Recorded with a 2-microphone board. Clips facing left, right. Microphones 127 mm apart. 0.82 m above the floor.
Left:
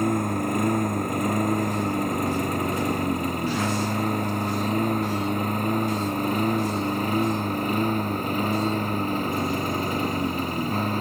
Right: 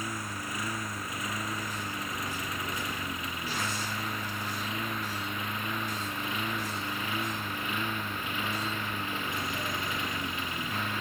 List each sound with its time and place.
0.0 s a lawn mower: 55° left (ahead or behind); by 11.0 s 40° left (ahead or behind)